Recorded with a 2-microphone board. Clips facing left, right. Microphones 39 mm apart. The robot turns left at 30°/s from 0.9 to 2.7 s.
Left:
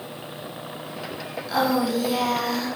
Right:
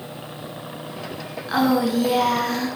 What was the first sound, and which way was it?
A woman speaking, 40° right.